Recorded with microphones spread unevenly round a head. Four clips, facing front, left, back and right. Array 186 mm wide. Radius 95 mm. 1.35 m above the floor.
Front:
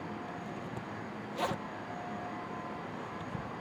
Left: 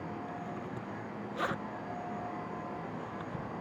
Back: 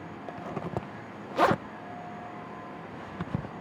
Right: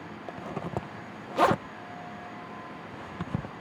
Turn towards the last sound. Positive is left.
turn(degrees=-135)